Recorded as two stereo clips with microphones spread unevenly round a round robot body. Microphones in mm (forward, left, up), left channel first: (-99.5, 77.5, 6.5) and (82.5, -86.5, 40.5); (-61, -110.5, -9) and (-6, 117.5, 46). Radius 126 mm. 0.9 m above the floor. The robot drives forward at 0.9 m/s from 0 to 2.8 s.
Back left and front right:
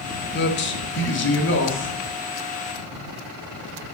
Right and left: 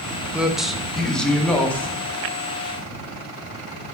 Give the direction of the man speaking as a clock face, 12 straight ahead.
6 o'clock.